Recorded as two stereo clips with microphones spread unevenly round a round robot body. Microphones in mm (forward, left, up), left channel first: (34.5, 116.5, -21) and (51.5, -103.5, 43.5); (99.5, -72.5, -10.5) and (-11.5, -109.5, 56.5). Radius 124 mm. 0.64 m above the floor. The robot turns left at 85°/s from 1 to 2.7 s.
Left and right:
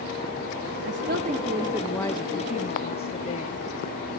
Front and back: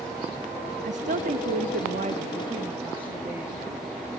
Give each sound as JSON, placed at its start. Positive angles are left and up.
{"t": 0.8, "sound": "a woman speaking", "azimuth_deg": -125, "distance_m": 0.8}